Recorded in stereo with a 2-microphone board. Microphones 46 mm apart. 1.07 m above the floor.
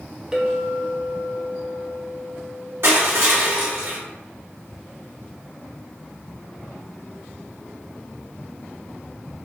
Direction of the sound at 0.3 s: 15° right (ahead or behind).